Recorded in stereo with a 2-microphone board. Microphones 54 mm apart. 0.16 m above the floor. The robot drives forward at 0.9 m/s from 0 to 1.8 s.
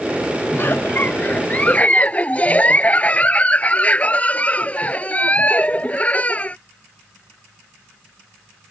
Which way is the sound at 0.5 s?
45° left (ahead or behind).